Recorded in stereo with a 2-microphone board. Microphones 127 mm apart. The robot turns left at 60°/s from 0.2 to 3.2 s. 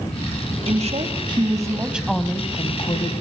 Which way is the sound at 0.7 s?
95° right.